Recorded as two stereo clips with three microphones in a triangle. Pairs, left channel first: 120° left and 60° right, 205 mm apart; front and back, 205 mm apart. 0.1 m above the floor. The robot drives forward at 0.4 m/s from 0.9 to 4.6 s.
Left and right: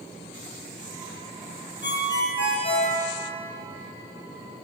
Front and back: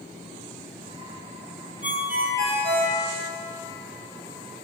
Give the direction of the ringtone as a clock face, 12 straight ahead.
8 o'clock.